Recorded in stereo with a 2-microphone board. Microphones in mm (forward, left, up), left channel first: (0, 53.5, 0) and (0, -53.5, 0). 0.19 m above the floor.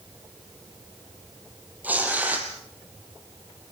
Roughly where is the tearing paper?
Centre.